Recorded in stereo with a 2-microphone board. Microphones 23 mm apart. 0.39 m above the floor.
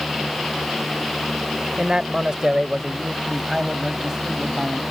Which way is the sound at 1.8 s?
35° right (ahead or behind).